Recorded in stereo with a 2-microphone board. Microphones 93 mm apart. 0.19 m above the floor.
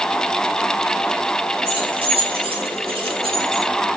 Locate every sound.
1.6 s keys jangling: 80° right, 5.5 m